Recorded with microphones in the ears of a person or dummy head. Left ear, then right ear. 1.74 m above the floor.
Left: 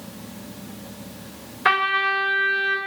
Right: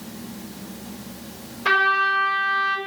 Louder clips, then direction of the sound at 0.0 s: Right 1 dB; 15° left (ahead or behind).